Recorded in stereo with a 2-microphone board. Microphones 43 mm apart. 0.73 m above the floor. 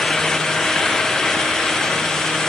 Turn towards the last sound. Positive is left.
No sound to turn to.